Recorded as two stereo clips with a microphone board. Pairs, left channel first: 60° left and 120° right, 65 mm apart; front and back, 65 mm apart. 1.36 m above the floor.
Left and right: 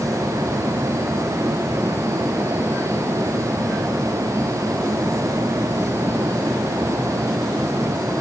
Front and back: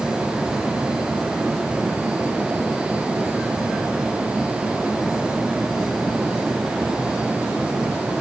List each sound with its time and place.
Only background noise.